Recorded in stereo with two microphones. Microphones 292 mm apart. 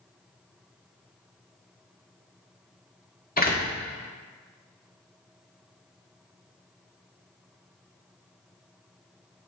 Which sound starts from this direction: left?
A door slam, at 3.4 s.